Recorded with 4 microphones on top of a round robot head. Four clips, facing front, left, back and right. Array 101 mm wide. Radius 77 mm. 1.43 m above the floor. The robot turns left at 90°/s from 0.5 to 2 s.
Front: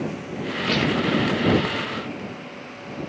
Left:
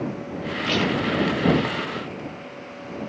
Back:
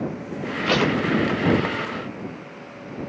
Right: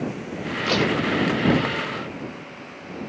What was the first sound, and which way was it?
Tape being pulled, 160° right.